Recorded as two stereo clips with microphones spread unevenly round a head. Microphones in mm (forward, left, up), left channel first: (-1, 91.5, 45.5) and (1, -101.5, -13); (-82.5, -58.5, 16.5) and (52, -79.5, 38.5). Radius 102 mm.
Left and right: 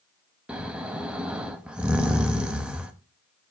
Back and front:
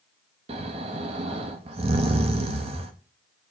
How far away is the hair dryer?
I don't hear a hair dryer.